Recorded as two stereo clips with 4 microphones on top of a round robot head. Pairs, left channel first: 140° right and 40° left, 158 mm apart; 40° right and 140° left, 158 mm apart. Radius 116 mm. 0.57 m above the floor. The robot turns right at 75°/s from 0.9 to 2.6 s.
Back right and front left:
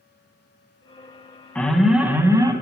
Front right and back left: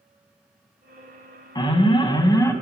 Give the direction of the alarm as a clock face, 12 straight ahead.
2 o'clock.